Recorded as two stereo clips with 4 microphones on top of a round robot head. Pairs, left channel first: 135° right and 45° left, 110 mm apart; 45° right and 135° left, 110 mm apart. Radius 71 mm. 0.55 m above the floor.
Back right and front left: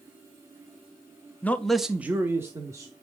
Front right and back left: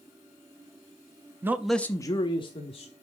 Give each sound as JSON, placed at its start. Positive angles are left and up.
{"t": 1.4, "sound": "a man speaking", "azimuth_deg": 170, "distance_m": 0.7}